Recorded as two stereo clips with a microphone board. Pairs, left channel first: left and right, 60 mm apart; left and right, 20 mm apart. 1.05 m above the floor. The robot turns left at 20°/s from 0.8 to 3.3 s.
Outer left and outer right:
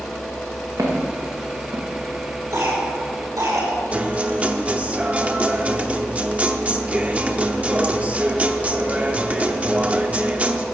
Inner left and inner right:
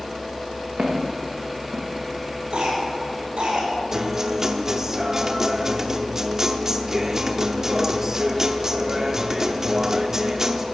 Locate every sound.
0.8 s footsteps: 70° right (ahead or behind), 4 m; by 1.9 s 75° right (ahead or behind), 4 m
2.5 s a cough: 80° right, 5.5 m
3.9 s a guitar: 25° right (ahead or behind), 0.7 m